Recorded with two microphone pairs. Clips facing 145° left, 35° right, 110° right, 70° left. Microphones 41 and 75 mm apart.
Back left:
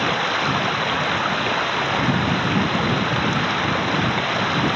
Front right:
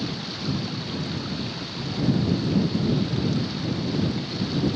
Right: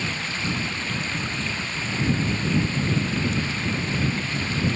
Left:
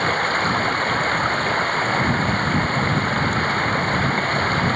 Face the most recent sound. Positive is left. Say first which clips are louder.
# back left 11 dB, left 10 dB
turn(degrees=110)